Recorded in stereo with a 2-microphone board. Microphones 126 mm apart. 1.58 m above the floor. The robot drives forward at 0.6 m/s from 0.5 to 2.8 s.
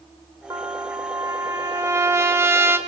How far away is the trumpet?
About 1.9 m.